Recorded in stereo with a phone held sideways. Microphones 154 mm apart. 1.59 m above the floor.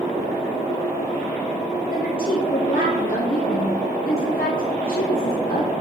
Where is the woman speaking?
70° left (ahead or behind), 0.8 m.